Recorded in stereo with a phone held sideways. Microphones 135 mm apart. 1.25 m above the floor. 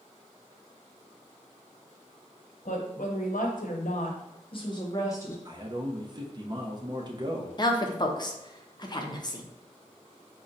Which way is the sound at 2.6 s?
65° left (ahead or behind).